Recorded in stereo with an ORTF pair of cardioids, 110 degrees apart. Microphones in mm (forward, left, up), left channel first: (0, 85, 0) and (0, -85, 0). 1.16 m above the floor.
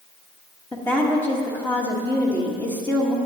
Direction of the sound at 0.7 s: 10° left.